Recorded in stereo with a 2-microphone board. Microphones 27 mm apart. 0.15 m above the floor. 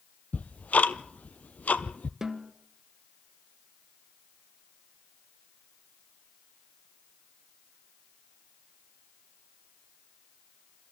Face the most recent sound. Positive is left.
turn(degrees=-15)  # may be behind; listen again after turning